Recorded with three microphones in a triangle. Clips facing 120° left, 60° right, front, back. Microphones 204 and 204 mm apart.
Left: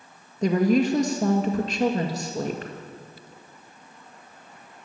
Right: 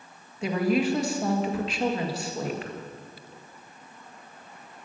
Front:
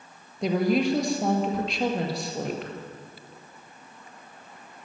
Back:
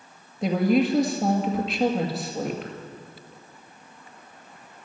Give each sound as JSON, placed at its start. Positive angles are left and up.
{"t": 0.4, "sound": "a woman speaking", "azimuth_deg": 90, "distance_m": 1.9}